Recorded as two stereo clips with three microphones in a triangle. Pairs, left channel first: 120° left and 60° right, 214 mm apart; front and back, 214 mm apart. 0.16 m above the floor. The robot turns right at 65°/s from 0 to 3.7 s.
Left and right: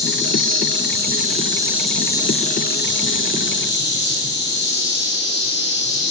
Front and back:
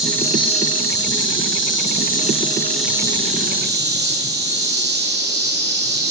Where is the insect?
90° right, 1.5 m; by 6.1 s 150° left, 1.5 m.